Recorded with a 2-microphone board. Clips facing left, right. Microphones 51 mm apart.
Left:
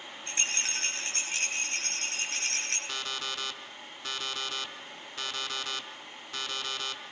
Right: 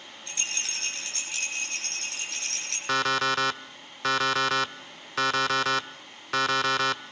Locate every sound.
0.3 s a rattle: 30° left (ahead or behind), 9.5 m
2.9 s an alarm clock: 85° right, 0.8 m